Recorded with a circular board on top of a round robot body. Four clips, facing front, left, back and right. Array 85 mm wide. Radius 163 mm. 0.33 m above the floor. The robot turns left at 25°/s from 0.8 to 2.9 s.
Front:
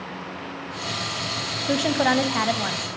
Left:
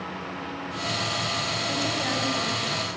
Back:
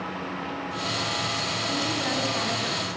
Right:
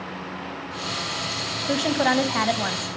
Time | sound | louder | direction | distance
1.7 | a woman speaking | right 9 dB, front 10 dB | 35° right | 3 m